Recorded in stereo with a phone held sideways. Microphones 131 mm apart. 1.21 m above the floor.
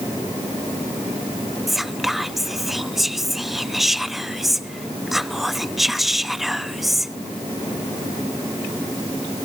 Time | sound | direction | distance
1.7 | whispering | centre (ahead or behind) | 0.6 m